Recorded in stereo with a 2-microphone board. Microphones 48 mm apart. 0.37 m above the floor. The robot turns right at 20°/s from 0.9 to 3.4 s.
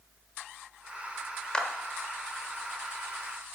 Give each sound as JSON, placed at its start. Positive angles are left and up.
{"t": 1.5, "sound": "a clap", "side_deg": 20, "distance_m": 1.0}